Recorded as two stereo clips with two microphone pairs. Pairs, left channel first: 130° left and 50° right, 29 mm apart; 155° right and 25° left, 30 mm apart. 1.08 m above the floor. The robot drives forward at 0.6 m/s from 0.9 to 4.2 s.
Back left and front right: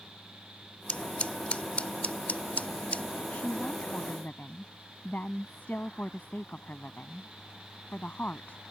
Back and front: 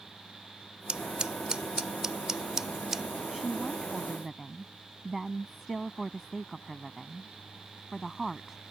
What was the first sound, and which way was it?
Scissors, 85° left.